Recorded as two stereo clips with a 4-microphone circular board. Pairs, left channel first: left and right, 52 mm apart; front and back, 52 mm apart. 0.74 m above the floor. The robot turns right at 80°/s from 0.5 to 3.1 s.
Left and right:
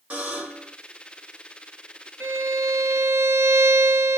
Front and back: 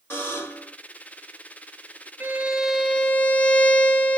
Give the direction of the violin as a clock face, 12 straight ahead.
4 o'clock.